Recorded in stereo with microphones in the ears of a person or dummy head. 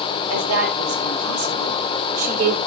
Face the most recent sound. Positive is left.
turn(degrees=-85)